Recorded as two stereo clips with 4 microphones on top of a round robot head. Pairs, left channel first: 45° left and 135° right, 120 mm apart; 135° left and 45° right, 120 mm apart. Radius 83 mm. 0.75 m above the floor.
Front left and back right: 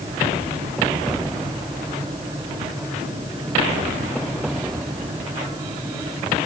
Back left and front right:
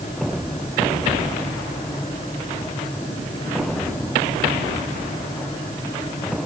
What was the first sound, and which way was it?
Only background noise.